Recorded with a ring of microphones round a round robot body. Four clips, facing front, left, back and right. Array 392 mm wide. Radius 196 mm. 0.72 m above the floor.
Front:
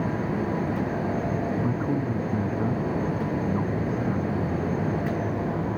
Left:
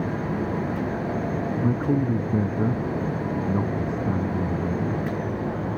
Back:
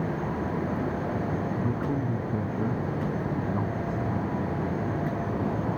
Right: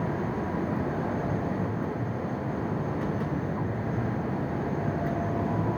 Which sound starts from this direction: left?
A man speaking, at 1.6 s.